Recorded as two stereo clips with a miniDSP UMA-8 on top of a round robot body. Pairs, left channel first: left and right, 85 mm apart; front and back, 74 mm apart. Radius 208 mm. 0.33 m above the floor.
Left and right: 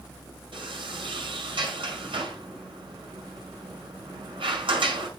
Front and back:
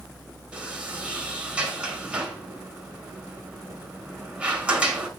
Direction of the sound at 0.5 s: 110° right.